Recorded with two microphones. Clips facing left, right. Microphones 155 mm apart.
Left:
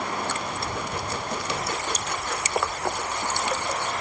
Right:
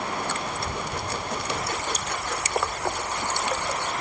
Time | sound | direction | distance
0.5 | a child speaking | 25° right (ahead or behind) | 9 m